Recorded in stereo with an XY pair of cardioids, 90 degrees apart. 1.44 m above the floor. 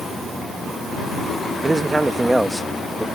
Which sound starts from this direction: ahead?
A man speaking, at 1.6 s.